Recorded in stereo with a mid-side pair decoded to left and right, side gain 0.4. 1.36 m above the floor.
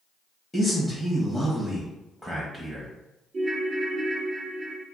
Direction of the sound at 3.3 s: 45° right.